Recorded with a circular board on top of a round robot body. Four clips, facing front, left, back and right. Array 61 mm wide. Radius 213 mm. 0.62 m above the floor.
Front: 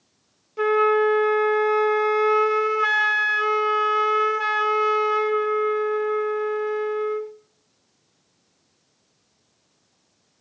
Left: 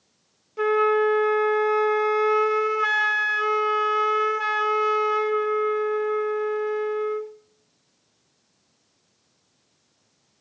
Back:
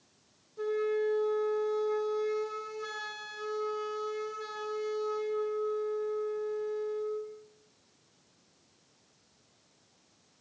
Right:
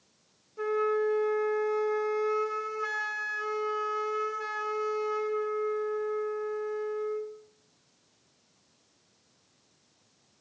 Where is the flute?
40° left, 0.8 m.